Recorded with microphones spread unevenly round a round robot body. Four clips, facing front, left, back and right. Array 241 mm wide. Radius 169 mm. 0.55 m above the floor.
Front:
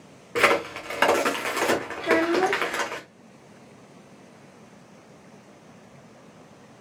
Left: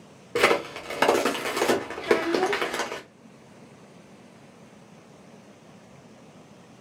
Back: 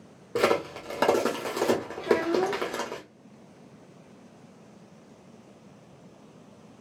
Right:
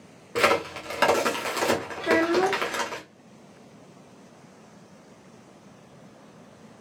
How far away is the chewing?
I don't hear chewing.